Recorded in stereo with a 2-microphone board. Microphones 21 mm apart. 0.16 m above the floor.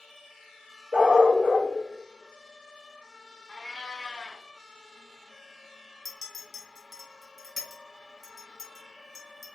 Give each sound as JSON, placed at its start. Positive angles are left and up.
{"t": 0.9, "sound": "a dog barking", "side_deg": -75, "distance_m": 1.7}
{"t": 3.5, "sound": "a cat meowing", "side_deg": 30, "distance_m": 0.7}
{"t": 6.0, "sound": "a clink", "side_deg": 10, "distance_m": 0.8}